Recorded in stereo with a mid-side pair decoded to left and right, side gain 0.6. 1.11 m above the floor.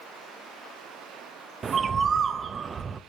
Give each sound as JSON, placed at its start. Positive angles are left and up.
{"t": 1.6, "sound": "a bird", "azimuth_deg": -30, "distance_m": 0.6}